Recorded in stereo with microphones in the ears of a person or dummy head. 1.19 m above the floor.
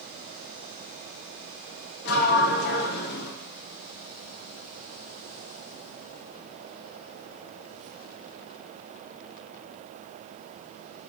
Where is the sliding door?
55° left (ahead or behind), 0.8 m.